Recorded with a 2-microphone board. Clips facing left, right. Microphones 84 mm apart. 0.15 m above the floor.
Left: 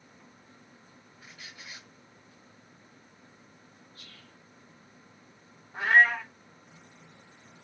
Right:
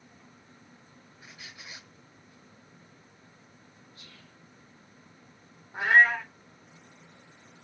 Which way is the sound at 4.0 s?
20° right (ahead or behind).